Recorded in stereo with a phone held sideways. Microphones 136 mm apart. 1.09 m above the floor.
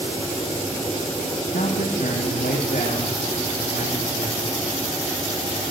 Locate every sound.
1.5 s a man speaking: 75° left (ahead or behind), 1.5 m